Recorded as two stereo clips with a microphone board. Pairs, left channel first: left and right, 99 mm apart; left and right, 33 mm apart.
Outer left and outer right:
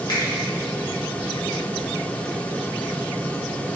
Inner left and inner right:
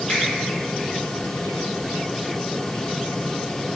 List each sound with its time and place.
0.1 s a finger snap: 45° left (ahead or behind), 1.8 m